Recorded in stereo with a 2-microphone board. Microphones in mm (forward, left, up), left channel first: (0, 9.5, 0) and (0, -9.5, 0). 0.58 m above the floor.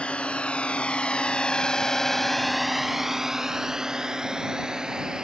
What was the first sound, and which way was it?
A drone, 85° left.